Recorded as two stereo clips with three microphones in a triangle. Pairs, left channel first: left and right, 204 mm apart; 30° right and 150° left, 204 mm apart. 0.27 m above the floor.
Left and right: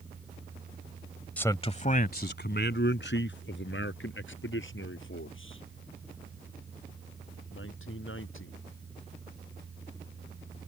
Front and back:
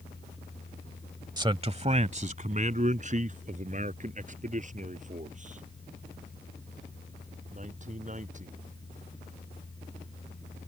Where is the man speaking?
160° left; by 8.6 s 95° left.